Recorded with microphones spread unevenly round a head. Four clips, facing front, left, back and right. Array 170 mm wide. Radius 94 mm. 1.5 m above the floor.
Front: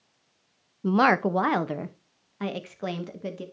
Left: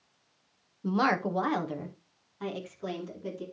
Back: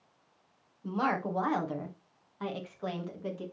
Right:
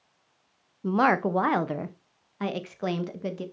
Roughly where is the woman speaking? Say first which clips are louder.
Right 4 dB, front 10 dB; ahead.